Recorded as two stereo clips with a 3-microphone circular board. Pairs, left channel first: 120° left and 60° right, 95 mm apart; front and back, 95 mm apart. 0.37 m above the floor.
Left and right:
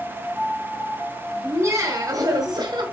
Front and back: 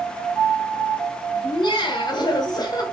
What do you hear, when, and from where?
1.4 s laughter: straight ahead, 2 m; by 2.8 s 35° right, 2 m